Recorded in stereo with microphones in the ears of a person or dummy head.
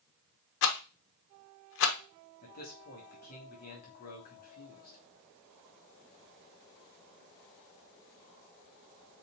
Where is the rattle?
70° left (ahead or behind), 0.9 m.